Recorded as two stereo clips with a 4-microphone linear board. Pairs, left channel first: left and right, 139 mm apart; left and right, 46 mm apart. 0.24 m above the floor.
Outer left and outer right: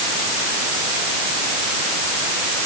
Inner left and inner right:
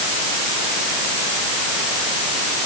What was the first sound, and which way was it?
Only background noise.